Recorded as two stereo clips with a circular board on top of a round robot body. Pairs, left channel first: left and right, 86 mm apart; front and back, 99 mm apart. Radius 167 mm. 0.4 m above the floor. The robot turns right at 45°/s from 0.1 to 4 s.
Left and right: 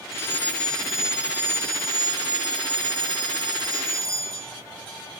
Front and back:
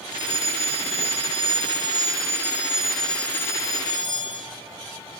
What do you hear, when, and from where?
0.1 s a fire alarm: 145° left, 7.5 m; by 4.5 s 40° right, 7.5 m